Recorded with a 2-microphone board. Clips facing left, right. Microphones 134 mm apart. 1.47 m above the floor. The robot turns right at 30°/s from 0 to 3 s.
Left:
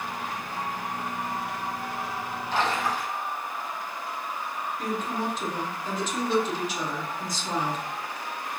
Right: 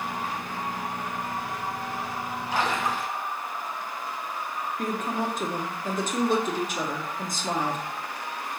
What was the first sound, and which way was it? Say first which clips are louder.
A splash: even; 10° right (ahead or behind).